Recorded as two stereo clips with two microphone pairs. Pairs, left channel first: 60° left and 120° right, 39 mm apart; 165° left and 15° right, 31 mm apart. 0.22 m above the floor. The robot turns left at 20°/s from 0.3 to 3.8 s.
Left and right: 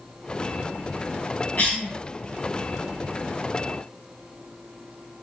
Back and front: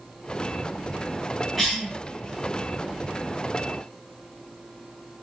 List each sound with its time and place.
1.6 s a cough: 80° left, 1.6 m; by 1.9 s 75° left, 1.6 m